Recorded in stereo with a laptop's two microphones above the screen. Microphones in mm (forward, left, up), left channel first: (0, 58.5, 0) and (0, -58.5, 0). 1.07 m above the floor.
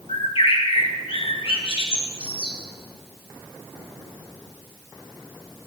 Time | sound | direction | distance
0.1 | a bird | 55° left (ahead or behind) | 1.3 m